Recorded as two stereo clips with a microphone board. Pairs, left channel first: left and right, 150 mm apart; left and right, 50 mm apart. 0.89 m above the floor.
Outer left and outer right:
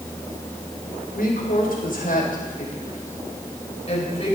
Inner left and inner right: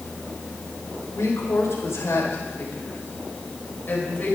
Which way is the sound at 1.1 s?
75° left (ahead or behind).